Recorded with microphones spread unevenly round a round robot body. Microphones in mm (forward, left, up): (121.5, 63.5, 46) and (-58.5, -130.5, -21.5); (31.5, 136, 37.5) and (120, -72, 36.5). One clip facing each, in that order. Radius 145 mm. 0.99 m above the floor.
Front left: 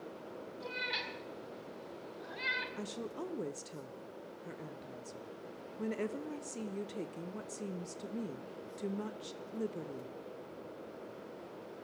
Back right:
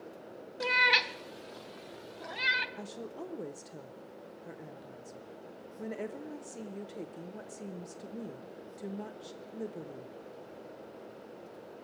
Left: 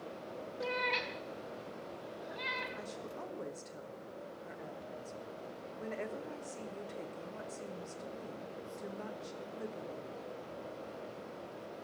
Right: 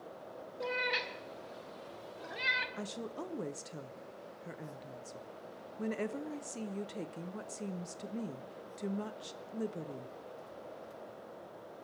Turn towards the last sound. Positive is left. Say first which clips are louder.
# front left 2 dB, right 3 dB
turn(degrees=-40)